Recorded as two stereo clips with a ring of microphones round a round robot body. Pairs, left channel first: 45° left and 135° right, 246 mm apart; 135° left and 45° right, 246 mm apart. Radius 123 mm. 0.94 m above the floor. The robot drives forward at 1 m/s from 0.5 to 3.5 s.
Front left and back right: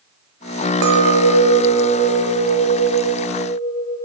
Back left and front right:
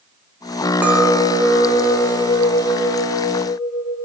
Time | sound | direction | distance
0.8 | a clink | 130° right | 0.8 m